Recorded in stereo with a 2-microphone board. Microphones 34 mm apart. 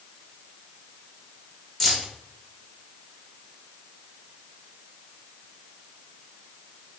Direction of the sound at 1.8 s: 10° left (ahead or behind).